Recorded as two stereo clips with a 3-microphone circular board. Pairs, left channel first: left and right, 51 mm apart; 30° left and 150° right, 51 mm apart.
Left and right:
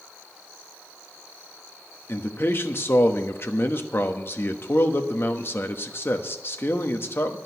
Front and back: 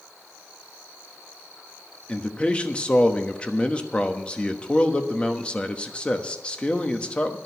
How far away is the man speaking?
About 1.1 m.